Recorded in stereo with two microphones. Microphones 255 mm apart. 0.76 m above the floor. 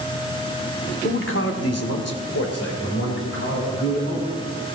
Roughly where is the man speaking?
Left.